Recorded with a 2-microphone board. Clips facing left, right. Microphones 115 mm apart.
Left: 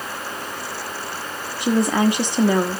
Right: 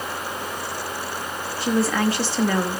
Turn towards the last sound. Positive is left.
turn(degrees=20)  # may be behind; listen again after turning